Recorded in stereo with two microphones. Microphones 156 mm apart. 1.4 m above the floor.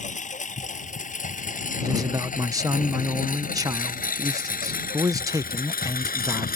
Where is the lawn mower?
55° left (ahead or behind); by 6.6 s 80° left.